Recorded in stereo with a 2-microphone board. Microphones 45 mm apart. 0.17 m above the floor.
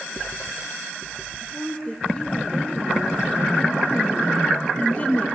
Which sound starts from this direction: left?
A woman speaking, at 1.4 s.